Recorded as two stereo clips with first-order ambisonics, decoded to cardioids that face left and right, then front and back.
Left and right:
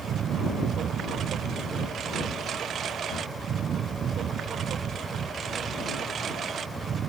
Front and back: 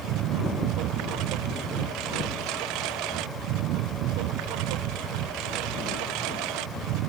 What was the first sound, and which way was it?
A lawn mower, 145° right.